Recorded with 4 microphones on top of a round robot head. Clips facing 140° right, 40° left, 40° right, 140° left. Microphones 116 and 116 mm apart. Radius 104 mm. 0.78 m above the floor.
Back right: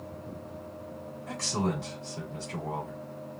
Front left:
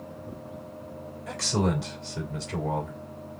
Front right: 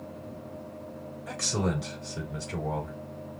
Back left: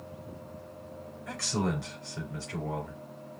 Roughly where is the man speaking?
Ahead left.